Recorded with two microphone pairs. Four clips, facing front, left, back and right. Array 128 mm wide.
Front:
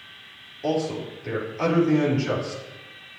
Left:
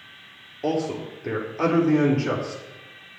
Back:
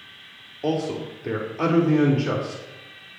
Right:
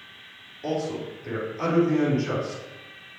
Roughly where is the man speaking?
Behind left.